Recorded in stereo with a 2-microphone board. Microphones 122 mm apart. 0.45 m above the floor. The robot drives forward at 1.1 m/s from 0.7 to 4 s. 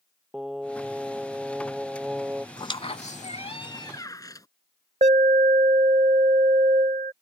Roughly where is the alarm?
Right.